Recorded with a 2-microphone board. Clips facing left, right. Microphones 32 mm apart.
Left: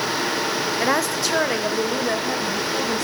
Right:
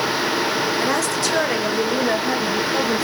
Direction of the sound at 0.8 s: 20° left (ahead or behind).